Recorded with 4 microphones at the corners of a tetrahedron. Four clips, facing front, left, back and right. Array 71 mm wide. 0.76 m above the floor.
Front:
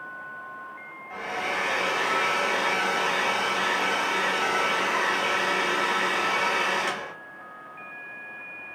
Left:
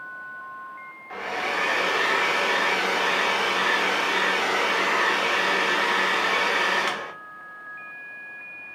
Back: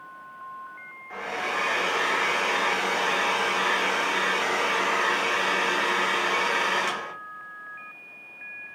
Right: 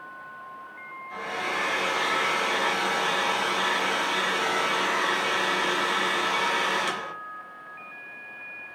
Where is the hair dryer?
95° left, 0.8 m.